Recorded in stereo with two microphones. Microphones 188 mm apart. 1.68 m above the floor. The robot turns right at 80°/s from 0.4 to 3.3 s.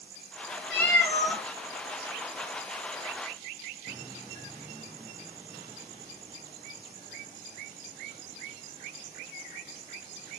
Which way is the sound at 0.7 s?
10° left (ahead or behind).